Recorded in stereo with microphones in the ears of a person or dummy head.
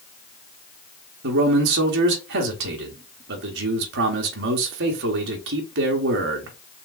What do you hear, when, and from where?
1.2 s a man speaking: 60° right (ahead or behind), 1.0 m